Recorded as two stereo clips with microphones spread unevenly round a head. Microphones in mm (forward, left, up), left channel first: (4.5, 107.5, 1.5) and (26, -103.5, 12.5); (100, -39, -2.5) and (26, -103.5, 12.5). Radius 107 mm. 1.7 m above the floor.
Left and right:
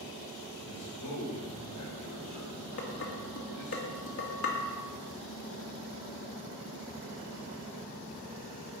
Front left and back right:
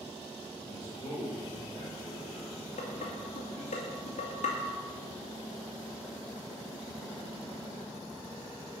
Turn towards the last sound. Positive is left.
turn(degrees=65)